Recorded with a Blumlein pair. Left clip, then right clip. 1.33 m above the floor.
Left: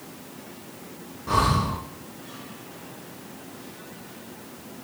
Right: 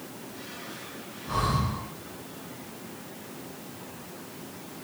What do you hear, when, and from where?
1.3 s breathing: 60° left, 1.2 m